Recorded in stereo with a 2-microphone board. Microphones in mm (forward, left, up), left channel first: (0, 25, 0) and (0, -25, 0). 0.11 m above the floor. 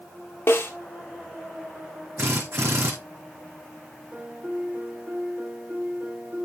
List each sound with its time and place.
0.5 s a snare drum: 55° left (ahead or behind), 2.5 m
2.2 s a drill: 80° right, 4 m
4.1 s a piano: 40° right (ahead or behind), 3.5 m